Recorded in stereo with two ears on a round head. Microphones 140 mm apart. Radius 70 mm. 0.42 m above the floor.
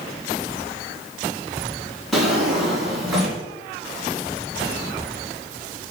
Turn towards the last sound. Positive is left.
turn(degrees=0)  # may be behind; listen again after turning